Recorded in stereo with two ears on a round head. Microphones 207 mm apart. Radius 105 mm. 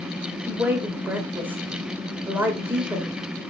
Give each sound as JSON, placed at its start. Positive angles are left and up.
{"t": 0.5, "sound": "a woman speaking", "side_deg": -10, "distance_m": 2.0}